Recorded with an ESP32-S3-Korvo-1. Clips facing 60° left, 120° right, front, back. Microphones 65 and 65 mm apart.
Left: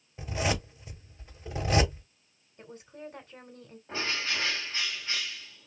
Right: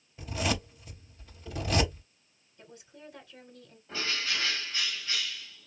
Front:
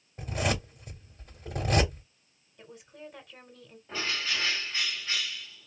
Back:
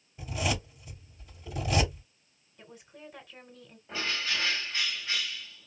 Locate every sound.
0.2 s a zipper: 5° left, 2 m
2.6 s a woman speaking: 90° left, 1.9 m
3.9 s a bird: 95° left, 1.7 m